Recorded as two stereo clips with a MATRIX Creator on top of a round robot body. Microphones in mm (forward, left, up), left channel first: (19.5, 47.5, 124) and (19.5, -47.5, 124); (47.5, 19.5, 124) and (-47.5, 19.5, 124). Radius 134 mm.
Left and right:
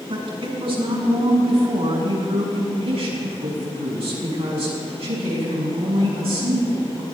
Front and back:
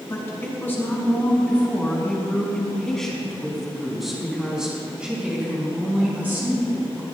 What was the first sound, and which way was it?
A woman speaking, 65° right.